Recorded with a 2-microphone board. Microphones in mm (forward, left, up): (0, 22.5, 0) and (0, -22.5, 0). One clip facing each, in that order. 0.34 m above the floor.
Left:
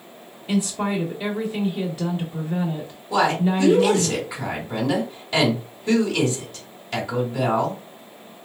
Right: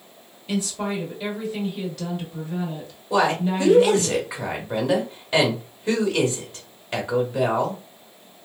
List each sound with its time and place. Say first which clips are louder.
0.5 s a woman speaking: left 3 dB; 20° left (ahead or behind), 0.8 m
3.1 s a woman speaking: left 1 dB; 15° right (ahead or behind), 1.2 m